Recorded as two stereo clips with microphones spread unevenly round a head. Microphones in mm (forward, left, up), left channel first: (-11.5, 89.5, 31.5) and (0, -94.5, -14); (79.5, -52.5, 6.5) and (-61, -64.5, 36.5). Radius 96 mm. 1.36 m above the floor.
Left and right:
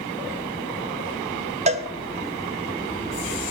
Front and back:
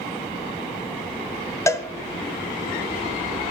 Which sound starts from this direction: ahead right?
A cowbell, at 1.7 s.